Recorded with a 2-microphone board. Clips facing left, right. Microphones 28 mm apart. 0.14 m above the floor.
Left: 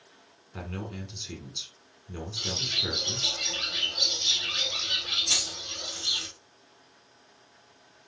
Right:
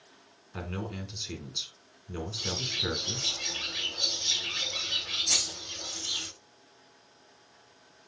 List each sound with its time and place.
0.5 s a man speaking: 10° right (ahead or behind), 1.2 m
2.4 s a bird: 70° left (ahead or behind), 2.5 m
5.3 s keys jangling: 65° left (ahead or behind), 3 m